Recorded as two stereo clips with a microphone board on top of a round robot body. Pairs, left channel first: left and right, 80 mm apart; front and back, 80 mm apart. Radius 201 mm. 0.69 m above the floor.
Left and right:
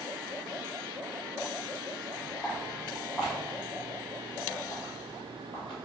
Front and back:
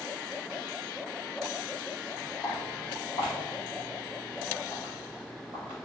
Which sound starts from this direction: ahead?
Footsteps, at 2.4 s.